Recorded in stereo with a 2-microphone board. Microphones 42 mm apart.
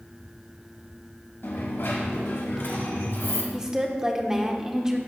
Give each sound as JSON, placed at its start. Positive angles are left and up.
{"t": 1.4, "sound": "a dropped coin", "side_deg": 80, "distance_m": 1.7}
{"t": 3.5, "sound": "a woman speaking", "side_deg": -15, "distance_m": 1.1}